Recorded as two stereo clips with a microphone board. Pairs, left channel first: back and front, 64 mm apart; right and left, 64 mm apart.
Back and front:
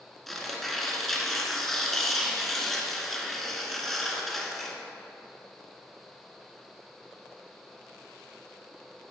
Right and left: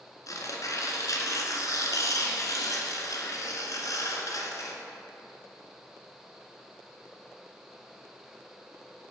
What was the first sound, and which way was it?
Tearing paper, 90° right.